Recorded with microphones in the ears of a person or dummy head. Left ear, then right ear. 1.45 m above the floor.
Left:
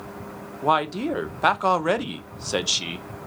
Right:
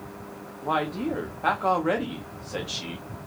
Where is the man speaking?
75° left (ahead or behind), 0.6 m.